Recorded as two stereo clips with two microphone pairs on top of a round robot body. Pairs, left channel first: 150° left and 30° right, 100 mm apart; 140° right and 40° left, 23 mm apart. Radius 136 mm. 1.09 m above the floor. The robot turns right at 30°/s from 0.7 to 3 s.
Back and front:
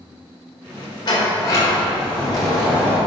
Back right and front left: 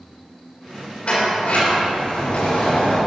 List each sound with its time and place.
1.1 s a sliding door: 165° right, 3.5 m; by 3.0 s 110° right, 3.5 m